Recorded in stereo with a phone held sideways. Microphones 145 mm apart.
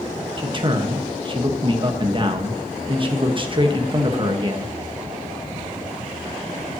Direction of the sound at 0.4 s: 35° right (ahead or behind).